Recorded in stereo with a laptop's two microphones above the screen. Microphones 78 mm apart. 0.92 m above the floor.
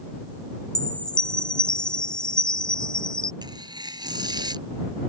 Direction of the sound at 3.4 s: 65° right (ahead or behind).